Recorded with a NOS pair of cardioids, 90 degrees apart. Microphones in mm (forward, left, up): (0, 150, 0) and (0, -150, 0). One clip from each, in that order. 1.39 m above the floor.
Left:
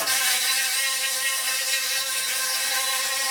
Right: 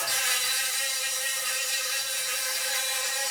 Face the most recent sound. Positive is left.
turn(degrees=70)